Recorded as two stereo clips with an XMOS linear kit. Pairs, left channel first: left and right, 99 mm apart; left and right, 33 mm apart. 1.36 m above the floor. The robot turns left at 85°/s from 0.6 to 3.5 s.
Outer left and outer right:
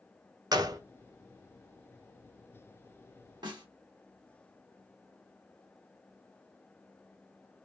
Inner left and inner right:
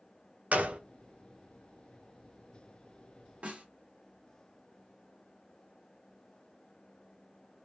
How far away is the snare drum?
About 1.2 m.